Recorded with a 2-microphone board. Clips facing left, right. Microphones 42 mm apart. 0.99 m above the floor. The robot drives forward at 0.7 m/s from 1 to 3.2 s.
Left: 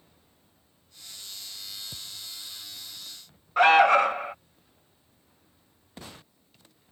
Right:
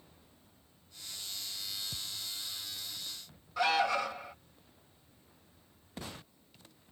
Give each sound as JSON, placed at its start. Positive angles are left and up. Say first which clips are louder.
{"t": 1.9, "sound": "a thud", "louder": "even", "side_deg": 25}
{"t": 3.6, "sound": "an alarm", "louder": "left 12 dB", "side_deg": 45}